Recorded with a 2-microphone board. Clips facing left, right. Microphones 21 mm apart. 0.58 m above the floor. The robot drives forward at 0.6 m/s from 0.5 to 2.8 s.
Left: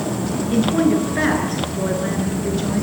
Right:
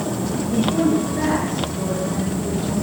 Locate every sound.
0.5 s a woman speaking: 55° left (ahead or behind), 9.5 m; by 2.8 s 60° left (ahead or behind), 8.5 m